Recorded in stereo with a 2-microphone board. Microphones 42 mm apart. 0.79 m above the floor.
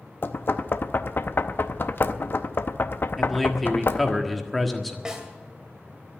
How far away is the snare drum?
About 2 m.